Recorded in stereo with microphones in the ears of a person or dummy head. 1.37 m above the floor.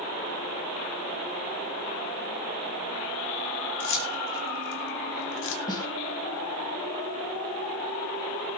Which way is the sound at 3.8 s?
75° left (ahead or behind).